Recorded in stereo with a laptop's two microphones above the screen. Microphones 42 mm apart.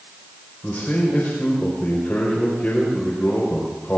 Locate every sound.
0.6 s a man speaking: 45° left (ahead or behind), 4.5 m